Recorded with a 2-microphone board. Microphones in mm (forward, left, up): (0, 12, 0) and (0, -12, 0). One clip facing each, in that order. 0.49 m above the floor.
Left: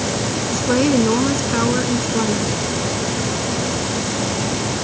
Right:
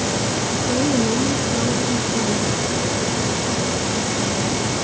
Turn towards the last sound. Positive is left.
turn(degrees=60)  # may be behind; listen again after turning